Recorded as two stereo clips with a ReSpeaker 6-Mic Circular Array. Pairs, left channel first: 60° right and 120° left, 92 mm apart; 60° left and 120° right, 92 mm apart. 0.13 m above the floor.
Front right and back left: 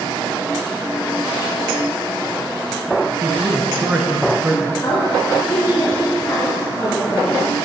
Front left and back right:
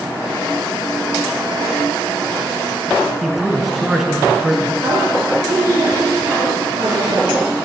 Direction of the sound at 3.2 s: 155° left.